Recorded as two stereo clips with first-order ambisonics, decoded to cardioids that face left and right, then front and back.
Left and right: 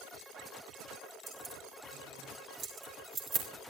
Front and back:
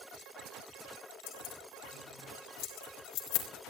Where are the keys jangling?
20° right, 4 m; by 3.5 s 35° right, 3.5 m.